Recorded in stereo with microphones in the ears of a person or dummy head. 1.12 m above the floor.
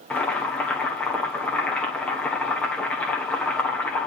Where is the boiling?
5° left (ahead or behind), 1.6 m.